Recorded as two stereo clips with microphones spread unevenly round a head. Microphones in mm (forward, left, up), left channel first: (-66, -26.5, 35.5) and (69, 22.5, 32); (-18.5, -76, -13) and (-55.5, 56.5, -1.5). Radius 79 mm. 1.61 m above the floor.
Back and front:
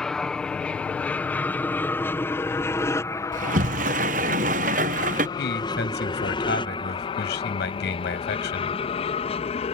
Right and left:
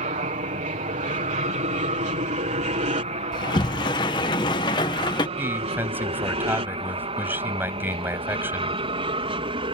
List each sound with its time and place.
0.0 s an aircraft: 115° left; by 9.8 s 155° left
3.3 s a sliding door: 15° right
5.4 s a man speaking: straight behind